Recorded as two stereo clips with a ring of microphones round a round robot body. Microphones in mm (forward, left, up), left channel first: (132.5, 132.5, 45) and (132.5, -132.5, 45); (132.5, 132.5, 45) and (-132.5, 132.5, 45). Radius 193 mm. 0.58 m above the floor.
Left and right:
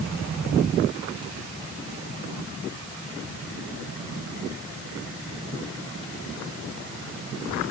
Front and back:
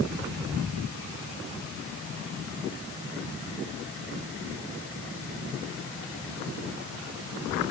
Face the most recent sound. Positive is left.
No sound to turn to.